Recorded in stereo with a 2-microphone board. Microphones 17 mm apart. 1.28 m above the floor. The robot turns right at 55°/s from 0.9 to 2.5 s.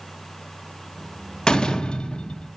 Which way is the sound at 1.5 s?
60° left.